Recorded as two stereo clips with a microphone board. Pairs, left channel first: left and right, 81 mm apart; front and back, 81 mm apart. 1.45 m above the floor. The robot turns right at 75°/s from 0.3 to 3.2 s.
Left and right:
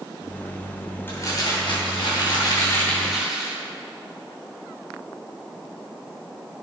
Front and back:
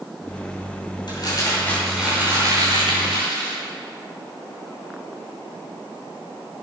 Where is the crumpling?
25° left, 5.5 m; by 3.6 s 175° right, 5.5 m.